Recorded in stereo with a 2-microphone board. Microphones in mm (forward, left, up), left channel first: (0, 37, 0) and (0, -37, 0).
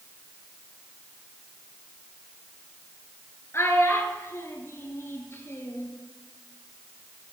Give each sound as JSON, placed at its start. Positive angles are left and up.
{"t": 3.5, "sound": "a child speaking", "side_deg": 35, "distance_m": 1.4}